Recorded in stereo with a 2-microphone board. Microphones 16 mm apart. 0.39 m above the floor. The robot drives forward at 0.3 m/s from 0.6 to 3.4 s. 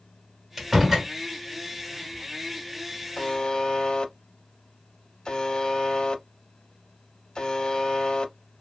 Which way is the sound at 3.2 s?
55° left (ahead or behind).